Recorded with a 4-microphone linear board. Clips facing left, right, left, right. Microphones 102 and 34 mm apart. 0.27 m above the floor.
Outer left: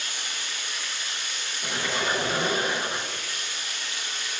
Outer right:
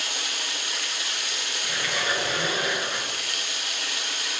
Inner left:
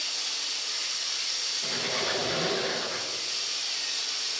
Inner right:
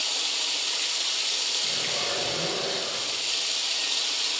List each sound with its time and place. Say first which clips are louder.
0.0 s running water: outer right 3 dB, inner right 5 dB; 70° right (ahead or behind), 1.1 m
1.6 s a squeak: outer left 2 dB, inner right 2 dB; 35° left (ahead or behind), 2 m